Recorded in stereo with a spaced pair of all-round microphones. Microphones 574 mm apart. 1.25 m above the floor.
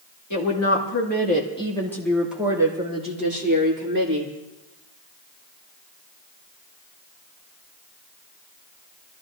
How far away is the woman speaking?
About 2.5 m.